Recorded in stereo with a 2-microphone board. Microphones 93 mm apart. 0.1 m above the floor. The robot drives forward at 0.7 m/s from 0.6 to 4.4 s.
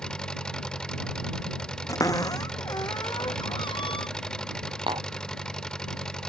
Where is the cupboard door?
40° left (ahead or behind); by 4.1 s 70° left (ahead or behind).